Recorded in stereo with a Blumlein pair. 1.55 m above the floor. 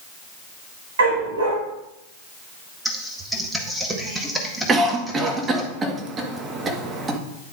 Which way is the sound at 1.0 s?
65° right.